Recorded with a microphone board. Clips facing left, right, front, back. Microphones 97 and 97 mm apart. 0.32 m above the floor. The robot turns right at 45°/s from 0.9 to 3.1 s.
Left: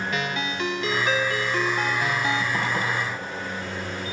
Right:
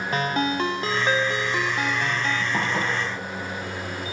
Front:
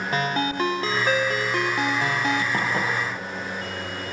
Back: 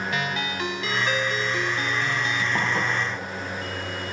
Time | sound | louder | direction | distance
0.1 | a ringtone | right 4 dB, front 4 dB | 45° right | 0.8 m
2.5 | dishes clattering | right 1 dB, even | 15° right | 5 m